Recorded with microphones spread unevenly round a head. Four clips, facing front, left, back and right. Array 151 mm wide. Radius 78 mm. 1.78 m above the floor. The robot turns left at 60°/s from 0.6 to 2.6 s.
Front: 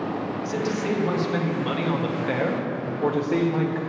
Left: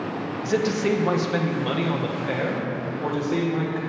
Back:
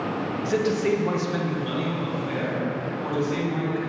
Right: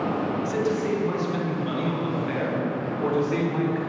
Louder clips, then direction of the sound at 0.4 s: Left 6 dB, back 5 dB; 125° left.